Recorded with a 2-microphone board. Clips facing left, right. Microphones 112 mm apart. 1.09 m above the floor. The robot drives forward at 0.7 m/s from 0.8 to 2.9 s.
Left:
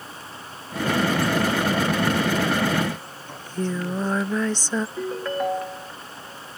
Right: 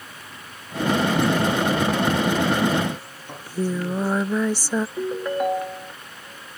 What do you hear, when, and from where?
3.3 s singing: 10° right (ahead or behind)
5.0 s a ringtone: 10° right (ahead or behind)